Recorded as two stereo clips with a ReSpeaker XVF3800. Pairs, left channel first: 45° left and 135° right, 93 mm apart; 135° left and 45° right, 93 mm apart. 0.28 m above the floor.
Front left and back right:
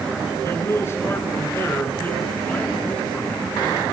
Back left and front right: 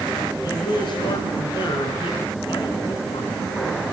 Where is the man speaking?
100° left, 4.5 m; by 3.5 s 125° left, 3.5 m.